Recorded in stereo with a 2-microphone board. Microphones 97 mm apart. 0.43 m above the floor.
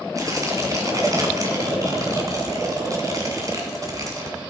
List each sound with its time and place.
0.1 s tearing paper: 35° right (ahead or behind), 2 m